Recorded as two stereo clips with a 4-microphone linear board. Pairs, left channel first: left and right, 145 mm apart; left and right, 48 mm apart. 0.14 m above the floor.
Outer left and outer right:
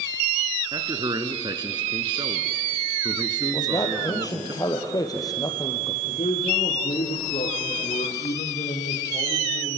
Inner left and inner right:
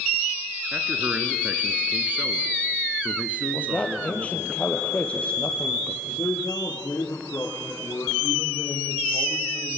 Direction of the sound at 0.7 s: 30° right (ahead or behind).